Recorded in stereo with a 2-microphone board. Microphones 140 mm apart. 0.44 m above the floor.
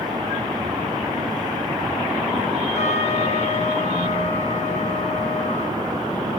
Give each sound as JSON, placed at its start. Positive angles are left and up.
{"t": 2.8, "sound": "a trumpet", "side_deg": 55, "distance_m": 3.5}